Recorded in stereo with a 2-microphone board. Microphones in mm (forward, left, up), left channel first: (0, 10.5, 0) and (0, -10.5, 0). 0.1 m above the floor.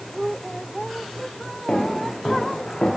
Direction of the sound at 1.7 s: 45° left (ahead or behind).